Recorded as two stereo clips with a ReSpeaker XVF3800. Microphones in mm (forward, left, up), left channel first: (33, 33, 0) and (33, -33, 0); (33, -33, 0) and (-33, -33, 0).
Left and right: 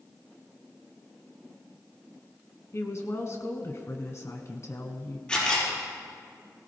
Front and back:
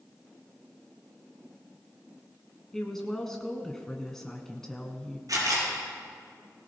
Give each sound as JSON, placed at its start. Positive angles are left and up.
{"t": 2.7, "sound": "a woman speaking", "azimuth_deg": 80, "distance_m": 1.5}
{"t": 5.3, "sound": "a camera shutter", "azimuth_deg": 165, "distance_m": 5.0}